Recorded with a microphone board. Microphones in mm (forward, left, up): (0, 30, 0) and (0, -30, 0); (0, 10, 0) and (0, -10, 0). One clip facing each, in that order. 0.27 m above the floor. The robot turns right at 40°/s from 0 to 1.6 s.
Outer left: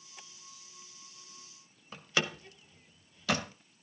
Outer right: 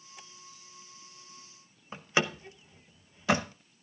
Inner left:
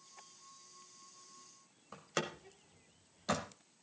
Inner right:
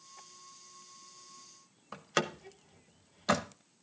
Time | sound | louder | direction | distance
1.9 | a door slam | outer right 4 dB, inner right 6 dB | 25° right (ahead or behind) | 0.8 m